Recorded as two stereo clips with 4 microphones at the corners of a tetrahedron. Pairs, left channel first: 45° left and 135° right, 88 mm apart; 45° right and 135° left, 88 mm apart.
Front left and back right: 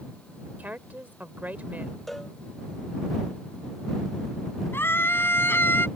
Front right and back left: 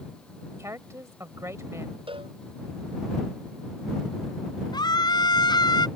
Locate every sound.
0.6 s a woman speaking: 165° left
2.1 s a cowbell: 135° left
4.7 s a scream: 15° right